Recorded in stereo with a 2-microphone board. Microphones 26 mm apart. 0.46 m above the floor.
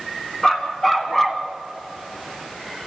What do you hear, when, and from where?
0.4 s a dog barking: 20° left (ahead or behind), 2 m; by 1.4 s 5° left (ahead or behind), 1.4 m